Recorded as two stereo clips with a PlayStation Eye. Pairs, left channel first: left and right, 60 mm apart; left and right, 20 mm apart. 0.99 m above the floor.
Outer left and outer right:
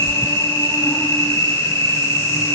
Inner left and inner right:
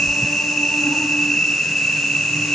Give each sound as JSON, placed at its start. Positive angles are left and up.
{"t": 0.0, "sound": "an insect", "side_deg": 70, "distance_m": 8.0}